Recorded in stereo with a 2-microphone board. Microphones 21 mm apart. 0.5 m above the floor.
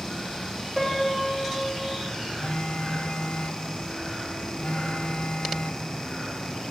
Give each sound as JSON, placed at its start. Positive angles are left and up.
{"t": 0.8, "sound": "a piano", "side_deg": 10, "distance_m": 1.9}
{"t": 2.4, "sound": "a phone buzzing", "side_deg": 75, "distance_m": 0.6}